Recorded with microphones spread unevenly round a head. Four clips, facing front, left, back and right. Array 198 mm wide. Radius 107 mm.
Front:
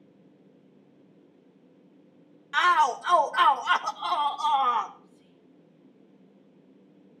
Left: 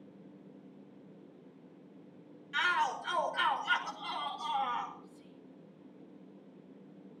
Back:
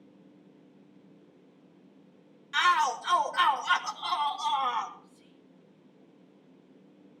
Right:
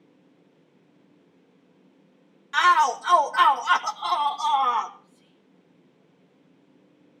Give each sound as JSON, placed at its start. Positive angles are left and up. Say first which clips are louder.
{"t": 2.5, "sound": "a shout", "louder": "right 13 dB, front 3 dB", "azimuth_deg": -40, "distance_m": 1.6}
{"t": 5.0, "sound": "whispering", "louder": "left 5 dB, even", "azimuth_deg": 140, "distance_m": 2.5}